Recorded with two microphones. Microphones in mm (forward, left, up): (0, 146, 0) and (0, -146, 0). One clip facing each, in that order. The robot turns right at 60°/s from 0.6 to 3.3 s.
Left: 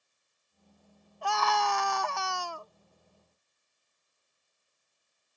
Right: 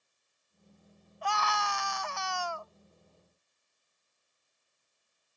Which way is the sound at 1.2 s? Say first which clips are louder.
Left 5 dB; 55° left.